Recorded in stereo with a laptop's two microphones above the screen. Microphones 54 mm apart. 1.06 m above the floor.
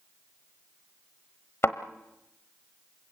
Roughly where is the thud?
Left.